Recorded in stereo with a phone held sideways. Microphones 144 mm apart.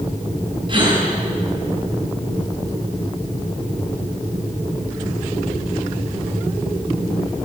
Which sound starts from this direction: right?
A gasp, at 0.7 s.